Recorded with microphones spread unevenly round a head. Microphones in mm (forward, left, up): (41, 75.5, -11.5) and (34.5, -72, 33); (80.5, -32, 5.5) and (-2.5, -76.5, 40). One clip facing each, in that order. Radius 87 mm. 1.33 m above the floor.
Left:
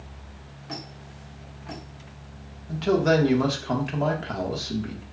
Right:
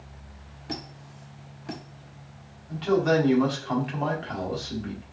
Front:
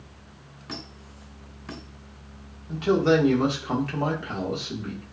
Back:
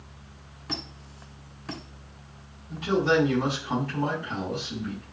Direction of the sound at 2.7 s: 50° left.